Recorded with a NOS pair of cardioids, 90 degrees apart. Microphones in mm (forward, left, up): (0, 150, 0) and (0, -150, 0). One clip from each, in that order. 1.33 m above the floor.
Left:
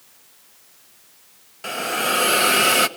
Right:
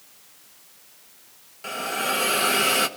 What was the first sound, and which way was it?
A hiss, 30° left.